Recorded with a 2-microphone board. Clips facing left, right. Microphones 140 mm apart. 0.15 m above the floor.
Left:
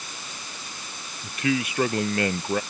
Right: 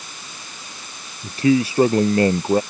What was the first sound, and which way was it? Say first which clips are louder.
A man speaking: right 9 dB; 30° right (ahead or behind).